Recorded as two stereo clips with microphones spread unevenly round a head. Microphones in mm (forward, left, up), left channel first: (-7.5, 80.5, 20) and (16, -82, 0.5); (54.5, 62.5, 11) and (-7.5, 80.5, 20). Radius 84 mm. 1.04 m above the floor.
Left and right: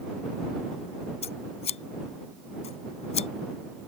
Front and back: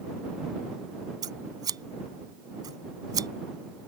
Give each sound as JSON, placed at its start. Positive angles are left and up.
{"t": 1.2, "sound": "scissors", "azimuth_deg": 150}